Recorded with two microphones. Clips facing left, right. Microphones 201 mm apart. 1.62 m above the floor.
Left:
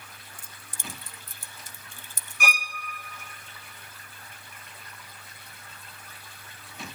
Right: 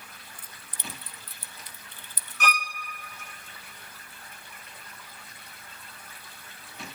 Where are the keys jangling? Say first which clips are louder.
Even; 45° left (ahead or behind), 0.7 m.